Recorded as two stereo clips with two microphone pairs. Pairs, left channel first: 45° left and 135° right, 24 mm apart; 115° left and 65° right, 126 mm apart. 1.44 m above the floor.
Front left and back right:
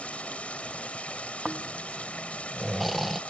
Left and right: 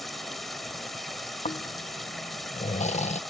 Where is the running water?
25° left.